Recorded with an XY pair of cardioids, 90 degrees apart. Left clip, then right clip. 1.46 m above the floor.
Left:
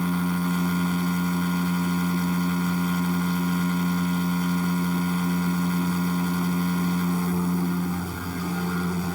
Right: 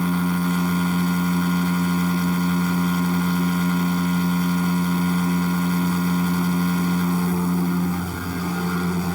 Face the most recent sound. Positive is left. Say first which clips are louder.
# right 3 dB
turn(degrees=-30)